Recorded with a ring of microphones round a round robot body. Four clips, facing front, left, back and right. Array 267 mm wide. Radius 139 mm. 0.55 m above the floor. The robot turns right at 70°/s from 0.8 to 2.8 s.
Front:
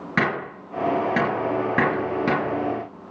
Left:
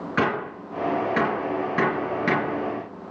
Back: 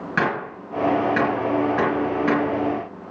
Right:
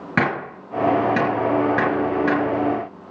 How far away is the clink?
I don't hear a clink.